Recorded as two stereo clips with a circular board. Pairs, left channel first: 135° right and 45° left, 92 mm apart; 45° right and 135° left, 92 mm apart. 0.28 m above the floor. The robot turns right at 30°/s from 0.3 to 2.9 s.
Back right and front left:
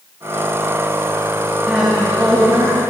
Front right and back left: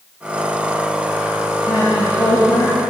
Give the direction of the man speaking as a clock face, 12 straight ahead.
1 o'clock.